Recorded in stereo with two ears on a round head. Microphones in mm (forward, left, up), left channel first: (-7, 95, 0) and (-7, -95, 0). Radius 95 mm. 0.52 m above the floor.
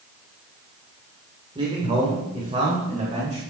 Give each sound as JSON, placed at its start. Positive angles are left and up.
{"t": 1.6, "sound": "a man speaking", "side_deg": -25, "distance_m": 1.9}